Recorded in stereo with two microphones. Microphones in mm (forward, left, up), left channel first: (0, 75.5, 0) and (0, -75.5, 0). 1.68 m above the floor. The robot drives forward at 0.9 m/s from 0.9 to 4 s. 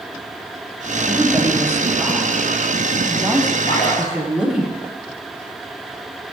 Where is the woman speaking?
15° right (ahead or behind), 2 m; by 4.7 s 10° right (ahead or behind), 5 m.